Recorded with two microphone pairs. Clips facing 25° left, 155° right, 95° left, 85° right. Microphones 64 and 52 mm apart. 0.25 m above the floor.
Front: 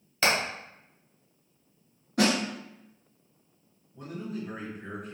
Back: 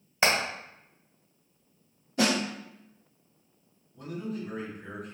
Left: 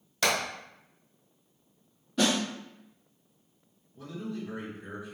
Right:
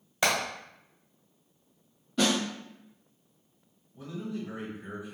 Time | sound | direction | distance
0.2 | hammering | 110° right | 1.3 m
2.2 | a snare drum | 5° left | 1.9 m
3.9 | a man speaking | 30° right | 1.6 m